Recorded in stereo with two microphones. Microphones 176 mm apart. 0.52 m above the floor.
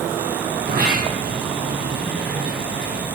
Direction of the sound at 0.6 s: 65° right (ahead or behind).